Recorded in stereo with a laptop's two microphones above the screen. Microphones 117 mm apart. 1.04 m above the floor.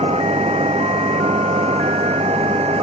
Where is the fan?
65° right (ahead or behind).